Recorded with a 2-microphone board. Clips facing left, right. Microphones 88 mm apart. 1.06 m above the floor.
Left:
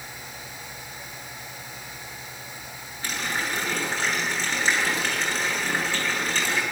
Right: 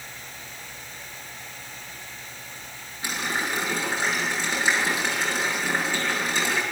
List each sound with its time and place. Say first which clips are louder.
3.0 s a running tap: right 1 dB; 10° right (ahead or behind), 7.5 m